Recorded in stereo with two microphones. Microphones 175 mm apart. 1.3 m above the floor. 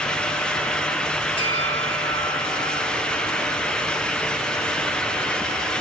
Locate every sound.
1.4 s a bell: 30° left (ahead or behind), 8 m